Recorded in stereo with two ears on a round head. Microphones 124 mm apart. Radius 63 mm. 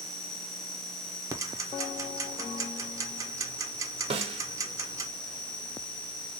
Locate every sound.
0.0 s an insect: 20° right (ahead or behind), 1.5 m
1.3 s ticking: 25° right (ahead or behind), 0.5 m
4.1 s a snare drum: 40° right (ahead or behind), 0.6 m